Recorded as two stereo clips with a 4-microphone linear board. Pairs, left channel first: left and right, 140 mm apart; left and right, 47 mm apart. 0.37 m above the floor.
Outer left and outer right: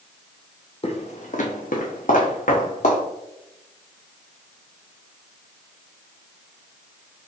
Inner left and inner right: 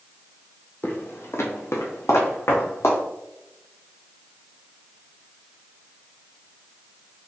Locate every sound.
0.8 s footsteps: 45° left (ahead or behind), 0.8 m; by 3.0 s 65° left (ahead or behind), 1.6 m